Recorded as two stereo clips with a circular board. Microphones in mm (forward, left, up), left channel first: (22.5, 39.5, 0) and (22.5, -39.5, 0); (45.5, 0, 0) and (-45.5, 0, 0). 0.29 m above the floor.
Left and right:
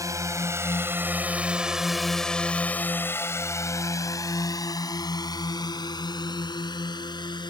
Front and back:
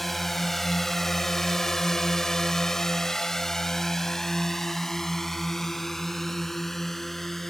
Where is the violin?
No violin in this recording.